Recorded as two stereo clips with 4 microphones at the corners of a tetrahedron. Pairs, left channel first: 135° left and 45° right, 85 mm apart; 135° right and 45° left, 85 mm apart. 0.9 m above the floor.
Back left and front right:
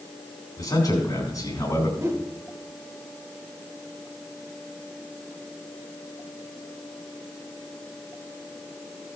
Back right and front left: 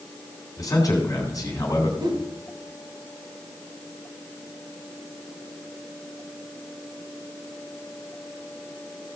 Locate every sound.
0.6 s a man speaking: straight behind, 3.5 m
2.0 s a whoosh: 15° left, 1.8 m